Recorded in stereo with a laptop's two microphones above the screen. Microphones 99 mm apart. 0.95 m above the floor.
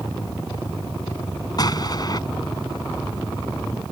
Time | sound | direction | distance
1.6 | an explosion | 45° left (ahead or behind) | ?